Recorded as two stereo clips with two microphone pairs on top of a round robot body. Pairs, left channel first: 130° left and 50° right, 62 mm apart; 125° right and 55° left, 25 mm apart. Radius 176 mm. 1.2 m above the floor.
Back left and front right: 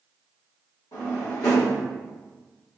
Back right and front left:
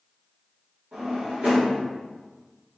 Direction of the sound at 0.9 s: 95° left.